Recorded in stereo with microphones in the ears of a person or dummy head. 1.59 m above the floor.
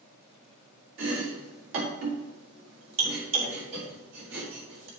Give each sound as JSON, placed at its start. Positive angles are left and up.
{"t": 1.0, "sound": "chopping", "side_deg": -75, "distance_m": 4.0}